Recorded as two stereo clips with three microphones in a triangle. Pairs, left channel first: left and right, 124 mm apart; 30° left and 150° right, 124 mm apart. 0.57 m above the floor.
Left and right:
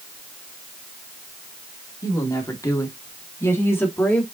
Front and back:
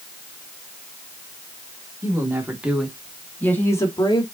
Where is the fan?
No fan in this recording.